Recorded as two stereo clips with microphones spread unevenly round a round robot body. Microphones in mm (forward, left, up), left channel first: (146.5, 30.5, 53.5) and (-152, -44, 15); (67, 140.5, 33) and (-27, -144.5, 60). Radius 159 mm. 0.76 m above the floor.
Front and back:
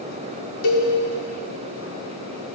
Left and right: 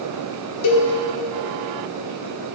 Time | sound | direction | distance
0.6 | a cowbell | 40° left | 1.4 m